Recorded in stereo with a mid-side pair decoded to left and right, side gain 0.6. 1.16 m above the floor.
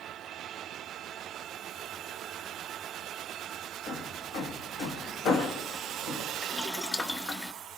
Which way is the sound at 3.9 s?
60° left.